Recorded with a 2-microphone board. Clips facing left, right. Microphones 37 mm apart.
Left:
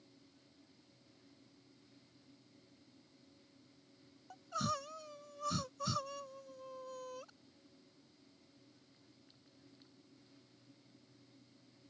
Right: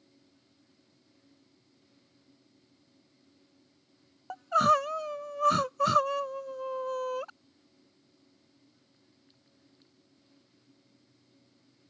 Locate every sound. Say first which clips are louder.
4.3 s crying: right 16 dB; 60° right (ahead or behind)